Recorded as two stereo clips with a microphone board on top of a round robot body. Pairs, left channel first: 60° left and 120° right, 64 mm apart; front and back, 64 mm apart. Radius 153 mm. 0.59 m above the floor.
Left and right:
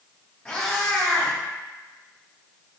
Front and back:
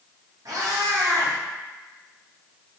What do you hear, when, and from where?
0.5 s a cat meowing: 130° left, 0.6 m